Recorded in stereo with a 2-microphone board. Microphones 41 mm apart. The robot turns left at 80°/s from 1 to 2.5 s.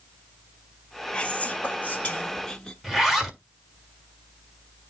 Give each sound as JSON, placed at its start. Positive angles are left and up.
{"t": 1.1, "sound": "whispering", "azimuth_deg": 130, "distance_m": 1.0}
{"t": 2.8, "sound": "a zipper", "side_deg": -5, "distance_m": 1.6}